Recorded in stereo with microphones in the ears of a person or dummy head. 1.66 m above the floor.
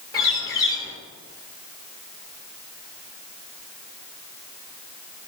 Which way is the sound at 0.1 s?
25° left (ahead or behind).